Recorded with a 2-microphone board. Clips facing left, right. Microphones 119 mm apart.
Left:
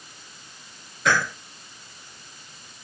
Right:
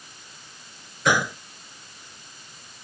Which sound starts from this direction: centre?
A gunshot, at 1.1 s.